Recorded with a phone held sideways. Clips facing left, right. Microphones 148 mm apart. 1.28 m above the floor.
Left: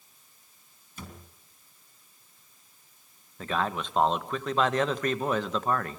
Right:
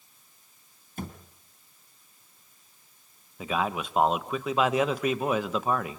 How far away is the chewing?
No chewing in this recording.